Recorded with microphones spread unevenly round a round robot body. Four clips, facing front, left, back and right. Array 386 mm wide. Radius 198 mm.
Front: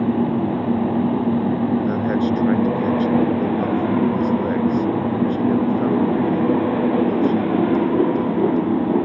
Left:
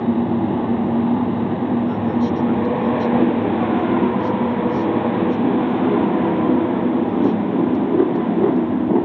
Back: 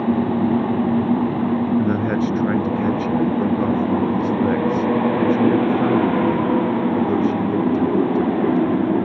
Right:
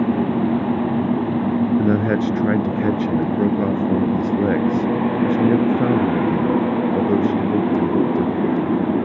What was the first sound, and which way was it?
A man speaking, 100° right.